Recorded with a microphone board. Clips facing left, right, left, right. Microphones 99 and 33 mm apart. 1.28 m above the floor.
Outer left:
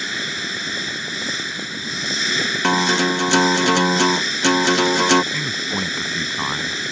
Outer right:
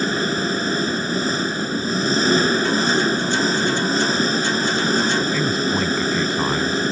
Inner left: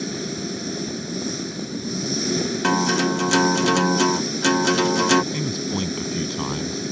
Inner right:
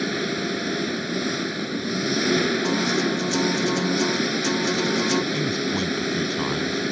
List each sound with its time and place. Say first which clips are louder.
0.0 s an engine running: outer right 8 dB, inner right 3 dB; 40° right (ahead or behind)
2.6 s a guitar: outer left 1 dB, inner left 2 dB; 75° left (ahead or behind)
5.3 s a man speaking: outer right 6 dB, inner right 2 dB; centre (ahead or behind)